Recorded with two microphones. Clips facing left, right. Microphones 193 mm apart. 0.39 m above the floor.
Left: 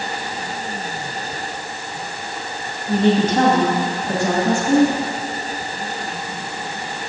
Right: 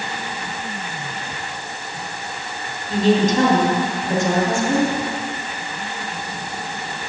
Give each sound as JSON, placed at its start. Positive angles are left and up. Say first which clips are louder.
{"t": 2.9, "sound": "a woman speaking", "louder": "even", "side_deg": 65, "distance_m": 2.5}